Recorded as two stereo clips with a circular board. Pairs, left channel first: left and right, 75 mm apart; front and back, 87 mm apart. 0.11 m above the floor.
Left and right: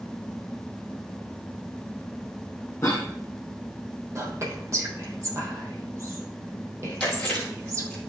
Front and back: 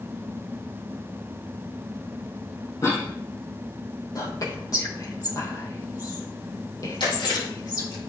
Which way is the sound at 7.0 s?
10° left.